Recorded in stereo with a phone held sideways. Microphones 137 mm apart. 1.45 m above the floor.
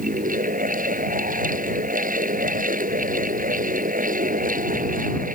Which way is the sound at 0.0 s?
70° right (ahead or behind).